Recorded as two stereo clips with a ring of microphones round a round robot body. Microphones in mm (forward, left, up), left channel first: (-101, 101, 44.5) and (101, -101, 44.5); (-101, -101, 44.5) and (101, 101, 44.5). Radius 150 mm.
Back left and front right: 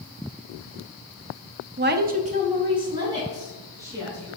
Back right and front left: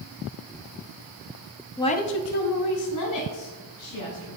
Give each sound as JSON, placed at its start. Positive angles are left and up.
{"t": 1.8, "sound": "a woman speaking", "azimuth_deg": -55, "distance_m": 0.6}